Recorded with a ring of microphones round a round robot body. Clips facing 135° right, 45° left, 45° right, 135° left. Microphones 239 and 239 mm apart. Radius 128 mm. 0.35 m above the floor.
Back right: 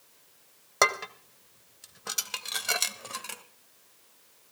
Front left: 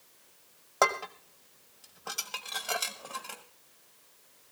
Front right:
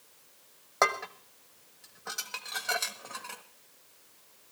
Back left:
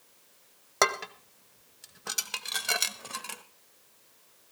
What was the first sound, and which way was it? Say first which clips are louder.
Dishes clattering: even, back left 2 dB; 170° left.